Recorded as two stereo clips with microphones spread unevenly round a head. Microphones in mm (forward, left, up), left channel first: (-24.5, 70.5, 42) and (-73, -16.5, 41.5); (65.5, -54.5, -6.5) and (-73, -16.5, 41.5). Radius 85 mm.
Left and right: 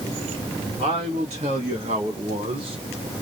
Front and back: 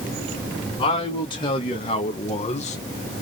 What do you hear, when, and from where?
0.8 s a man speaking: 75° right, 2.5 m; by 2.8 s 60° right, 1.0 m